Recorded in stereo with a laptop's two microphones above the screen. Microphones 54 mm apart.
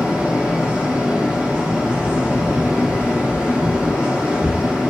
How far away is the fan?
About 0.9 m.